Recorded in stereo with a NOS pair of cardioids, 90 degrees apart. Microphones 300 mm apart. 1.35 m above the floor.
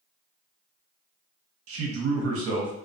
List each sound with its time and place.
1.7 s a man speaking: 50° right, 0.7 m